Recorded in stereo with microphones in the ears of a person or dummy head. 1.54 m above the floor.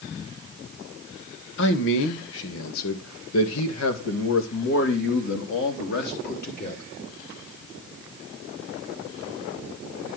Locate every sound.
1.6 s a man speaking: 60° left (ahead or behind), 2 m; by 6.8 s 55° left (ahead or behind), 3 m